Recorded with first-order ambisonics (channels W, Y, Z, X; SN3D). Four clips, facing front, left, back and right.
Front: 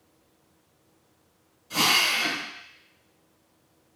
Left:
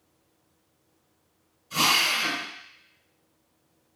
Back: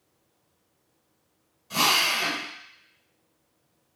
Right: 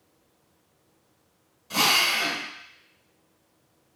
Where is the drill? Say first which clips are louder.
Right 1 dB, even; 100° right, 2 m.